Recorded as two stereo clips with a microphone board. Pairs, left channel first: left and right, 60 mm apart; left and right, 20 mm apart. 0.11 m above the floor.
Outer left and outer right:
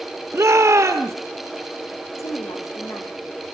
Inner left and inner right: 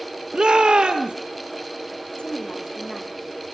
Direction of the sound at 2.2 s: 65° left (ahead or behind).